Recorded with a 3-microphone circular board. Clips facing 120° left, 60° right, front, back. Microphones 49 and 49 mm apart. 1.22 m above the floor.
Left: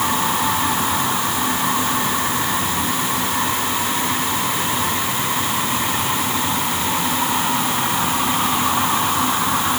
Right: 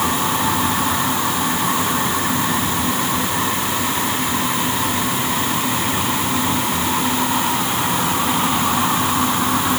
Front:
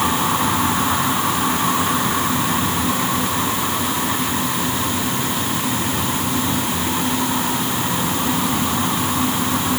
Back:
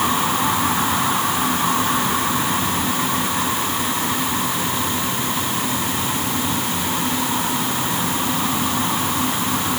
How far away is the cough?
I don't hear a cough.